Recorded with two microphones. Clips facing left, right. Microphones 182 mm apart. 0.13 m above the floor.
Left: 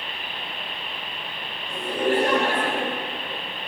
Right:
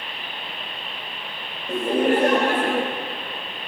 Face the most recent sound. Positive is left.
turn(degrees=-60)  # may be behind; listen again after turning